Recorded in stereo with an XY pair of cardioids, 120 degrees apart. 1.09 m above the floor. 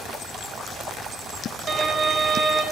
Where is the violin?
35° right, 1.5 m.